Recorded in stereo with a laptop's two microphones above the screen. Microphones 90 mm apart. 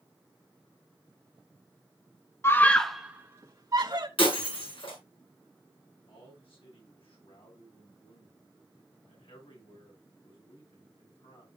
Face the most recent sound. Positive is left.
turn(degrees=85)